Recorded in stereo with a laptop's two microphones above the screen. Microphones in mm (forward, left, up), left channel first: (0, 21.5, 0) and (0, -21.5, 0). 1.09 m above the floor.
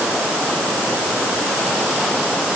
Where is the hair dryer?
No hair dryer in this recording.